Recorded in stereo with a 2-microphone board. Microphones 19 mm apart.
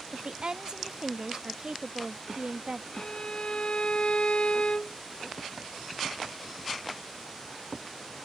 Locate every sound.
0.1 s a woman speaking: 55° right (ahead or behind)
2.9 s a violin: 70° left (ahead or behind)